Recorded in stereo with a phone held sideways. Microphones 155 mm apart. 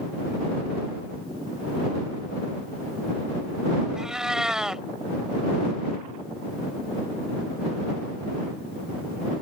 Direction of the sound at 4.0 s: 5° right (ahead or behind).